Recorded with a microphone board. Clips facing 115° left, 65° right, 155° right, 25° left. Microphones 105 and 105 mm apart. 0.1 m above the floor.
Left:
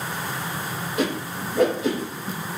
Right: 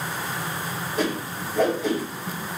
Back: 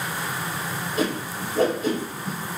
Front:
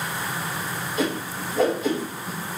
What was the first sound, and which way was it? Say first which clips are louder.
A whoosh: left 1 dB, even; straight behind.